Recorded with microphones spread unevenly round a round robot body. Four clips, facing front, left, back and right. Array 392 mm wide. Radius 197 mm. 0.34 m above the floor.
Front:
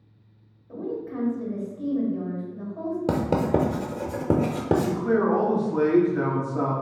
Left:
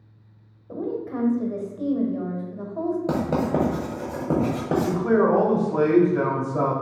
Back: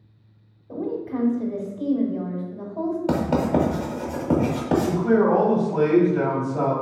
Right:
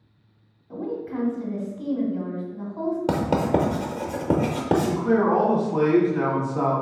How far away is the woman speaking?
About 1.2 m.